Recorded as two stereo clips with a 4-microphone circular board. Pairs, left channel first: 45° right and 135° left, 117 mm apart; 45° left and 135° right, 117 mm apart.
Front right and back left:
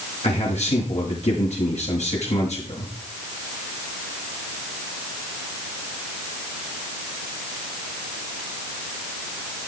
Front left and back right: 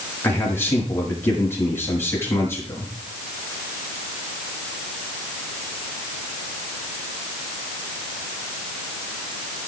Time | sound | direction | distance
0.2 | a man speaking | 25° right | 8 m